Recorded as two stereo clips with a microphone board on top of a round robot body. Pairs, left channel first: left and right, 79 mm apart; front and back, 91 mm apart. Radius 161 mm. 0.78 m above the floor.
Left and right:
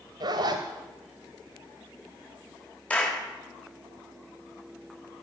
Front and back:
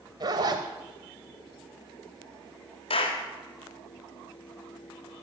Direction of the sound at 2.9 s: 15° left.